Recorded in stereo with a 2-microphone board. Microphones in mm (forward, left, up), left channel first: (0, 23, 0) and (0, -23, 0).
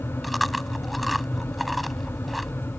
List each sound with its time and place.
0.2 s chewing: centre (ahead or behind)